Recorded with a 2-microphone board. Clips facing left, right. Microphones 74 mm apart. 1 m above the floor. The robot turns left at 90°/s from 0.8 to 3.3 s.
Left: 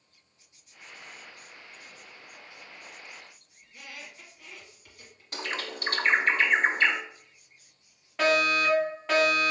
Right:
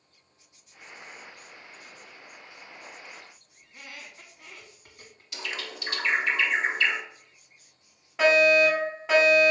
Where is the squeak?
40° right (ahead or behind), 1.3 m.